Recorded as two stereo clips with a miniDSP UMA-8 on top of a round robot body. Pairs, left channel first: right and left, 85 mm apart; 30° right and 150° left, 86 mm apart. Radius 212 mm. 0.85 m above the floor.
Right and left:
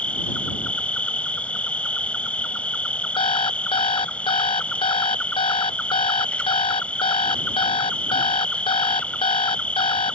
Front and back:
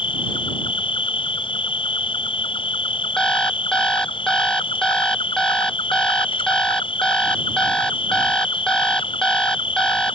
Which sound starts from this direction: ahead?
An insect, at 0.0 s.